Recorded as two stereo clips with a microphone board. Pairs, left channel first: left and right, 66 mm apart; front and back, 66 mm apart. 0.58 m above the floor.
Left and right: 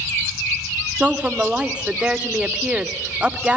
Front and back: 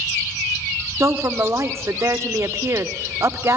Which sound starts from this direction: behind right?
A woman speaking, at 1.0 s.